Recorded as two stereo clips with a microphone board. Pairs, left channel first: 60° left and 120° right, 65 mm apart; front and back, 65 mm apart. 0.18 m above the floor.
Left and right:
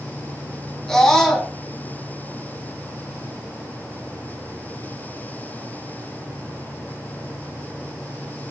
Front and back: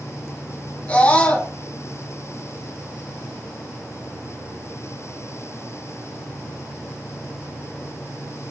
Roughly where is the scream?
Ahead.